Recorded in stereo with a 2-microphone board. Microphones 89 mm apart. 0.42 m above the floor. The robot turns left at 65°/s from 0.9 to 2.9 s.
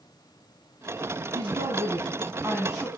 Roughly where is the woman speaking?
Right.